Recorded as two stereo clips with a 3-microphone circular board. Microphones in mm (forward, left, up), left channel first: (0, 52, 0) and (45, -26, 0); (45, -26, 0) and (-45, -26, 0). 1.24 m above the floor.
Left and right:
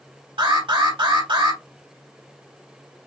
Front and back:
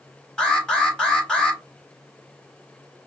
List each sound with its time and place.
0.4 s an alarm: 80° right, 3 m